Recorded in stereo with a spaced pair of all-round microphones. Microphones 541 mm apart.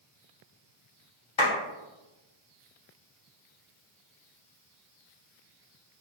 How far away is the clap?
About 1.3 m.